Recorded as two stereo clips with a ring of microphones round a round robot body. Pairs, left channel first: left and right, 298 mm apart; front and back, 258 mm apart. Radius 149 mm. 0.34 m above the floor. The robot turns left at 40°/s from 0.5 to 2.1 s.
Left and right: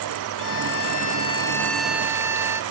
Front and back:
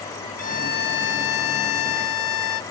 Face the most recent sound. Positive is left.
turn(degrees=-10)